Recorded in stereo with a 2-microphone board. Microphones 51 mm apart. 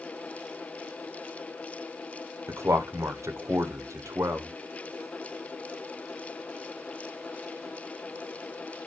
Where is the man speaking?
75° right (ahead or behind), 0.7 m.